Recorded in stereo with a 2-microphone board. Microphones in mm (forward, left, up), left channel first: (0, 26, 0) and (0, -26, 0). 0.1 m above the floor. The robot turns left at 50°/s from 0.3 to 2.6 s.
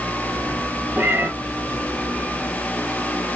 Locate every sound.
1.0 s a cat meowing: 45° right (ahead or behind), 1.1 m